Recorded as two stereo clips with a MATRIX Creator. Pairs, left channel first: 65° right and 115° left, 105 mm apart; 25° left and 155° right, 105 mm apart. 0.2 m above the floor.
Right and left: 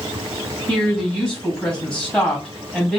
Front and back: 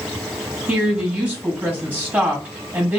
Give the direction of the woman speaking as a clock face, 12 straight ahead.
4 o'clock.